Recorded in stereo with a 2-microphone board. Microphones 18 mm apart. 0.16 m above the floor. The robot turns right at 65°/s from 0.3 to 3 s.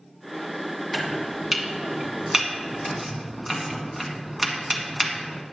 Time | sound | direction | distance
0.9 | chopping | 15° right (ahead or behind) | 1.5 m